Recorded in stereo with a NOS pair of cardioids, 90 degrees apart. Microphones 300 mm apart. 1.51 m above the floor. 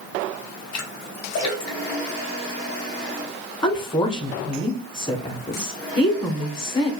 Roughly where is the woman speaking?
Ahead.